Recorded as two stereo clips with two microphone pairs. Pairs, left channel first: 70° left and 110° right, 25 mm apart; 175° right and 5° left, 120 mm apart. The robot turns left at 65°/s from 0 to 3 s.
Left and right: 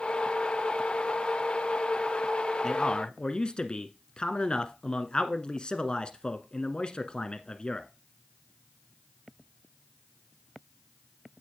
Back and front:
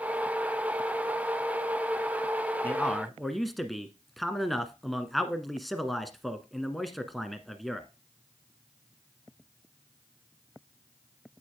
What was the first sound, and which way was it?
A man speaking, 120° left.